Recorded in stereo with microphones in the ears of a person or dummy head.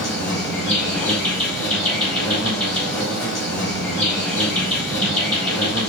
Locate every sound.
0.0 s an insect: centre (ahead or behind), 1.1 m